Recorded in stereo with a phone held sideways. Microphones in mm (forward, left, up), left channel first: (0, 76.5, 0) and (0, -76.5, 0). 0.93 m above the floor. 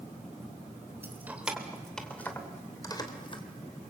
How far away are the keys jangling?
About 2.5 m.